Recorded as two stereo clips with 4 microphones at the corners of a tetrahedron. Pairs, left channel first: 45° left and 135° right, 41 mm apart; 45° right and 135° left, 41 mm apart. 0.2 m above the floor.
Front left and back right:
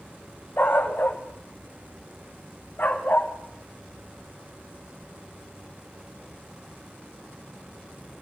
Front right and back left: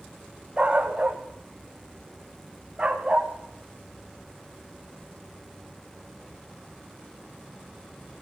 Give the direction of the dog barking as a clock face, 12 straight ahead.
10 o'clock.